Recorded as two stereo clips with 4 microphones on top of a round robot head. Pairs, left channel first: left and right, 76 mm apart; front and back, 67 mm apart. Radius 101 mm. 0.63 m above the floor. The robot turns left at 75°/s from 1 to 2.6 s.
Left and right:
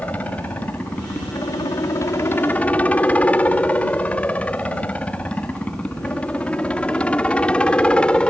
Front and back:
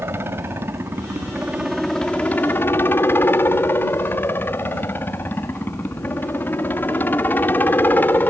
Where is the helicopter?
150° left; by 8.3 s 25° left.